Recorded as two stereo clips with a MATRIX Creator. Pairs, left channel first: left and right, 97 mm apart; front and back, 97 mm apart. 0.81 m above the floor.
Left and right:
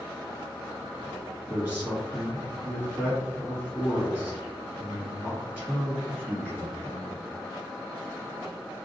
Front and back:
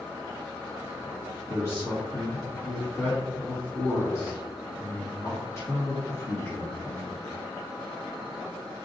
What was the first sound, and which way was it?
A man speaking, 30° right.